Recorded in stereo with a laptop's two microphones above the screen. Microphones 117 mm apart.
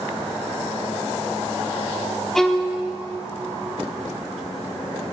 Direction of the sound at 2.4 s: 5° left (ahead or behind).